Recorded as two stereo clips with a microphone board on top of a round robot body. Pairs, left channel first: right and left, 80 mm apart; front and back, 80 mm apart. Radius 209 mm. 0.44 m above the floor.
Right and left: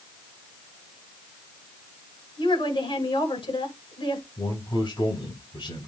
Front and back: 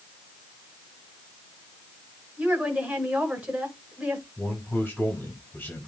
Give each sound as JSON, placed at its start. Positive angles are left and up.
{"t": 2.4, "sound": "a woman speaking", "azimuth_deg": -100, "distance_m": 7.5}
{"t": 4.4, "sound": "a man speaking", "azimuth_deg": -70, "distance_m": 6.0}